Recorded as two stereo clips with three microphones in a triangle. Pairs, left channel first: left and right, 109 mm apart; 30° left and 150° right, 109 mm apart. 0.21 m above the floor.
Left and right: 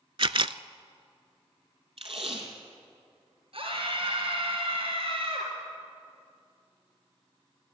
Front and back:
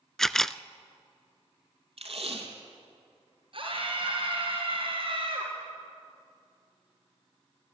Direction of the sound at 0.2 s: 55° right.